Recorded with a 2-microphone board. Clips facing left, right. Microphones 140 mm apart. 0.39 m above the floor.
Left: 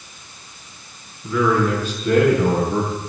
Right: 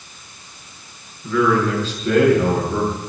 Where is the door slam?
No door slam in this recording.